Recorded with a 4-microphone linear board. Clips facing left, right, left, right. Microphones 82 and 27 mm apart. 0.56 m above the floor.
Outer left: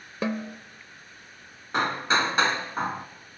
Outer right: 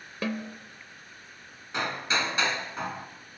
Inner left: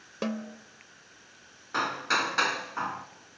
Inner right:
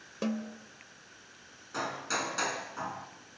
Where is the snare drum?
25° left (ahead or behind), 0.9 m.